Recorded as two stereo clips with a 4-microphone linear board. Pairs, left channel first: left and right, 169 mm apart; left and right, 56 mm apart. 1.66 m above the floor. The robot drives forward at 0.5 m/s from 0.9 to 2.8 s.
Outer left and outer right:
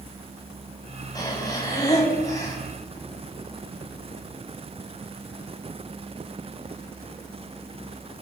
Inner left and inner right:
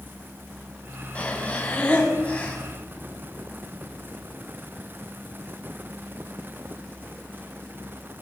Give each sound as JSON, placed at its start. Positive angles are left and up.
{"t": 1.1, "sound": "breathing", "side_deg": 20, "distance_m": 7.0}